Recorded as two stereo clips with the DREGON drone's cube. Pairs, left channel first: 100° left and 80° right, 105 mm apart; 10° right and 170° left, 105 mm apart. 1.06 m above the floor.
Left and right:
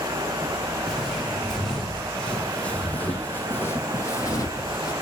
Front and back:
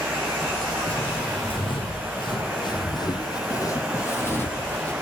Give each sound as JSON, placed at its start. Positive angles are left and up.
{"t": 0.8, "sound": "footsteps", "azimuth_deg": 10, "distance_m": 3.5}